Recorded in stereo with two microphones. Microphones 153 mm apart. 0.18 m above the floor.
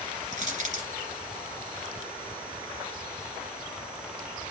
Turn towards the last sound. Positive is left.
turn(degrees=-55)  # may be behind; listen again after turning